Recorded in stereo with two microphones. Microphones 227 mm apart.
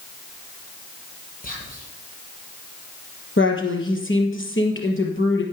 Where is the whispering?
40° left (ahead or behind), 5.5 m.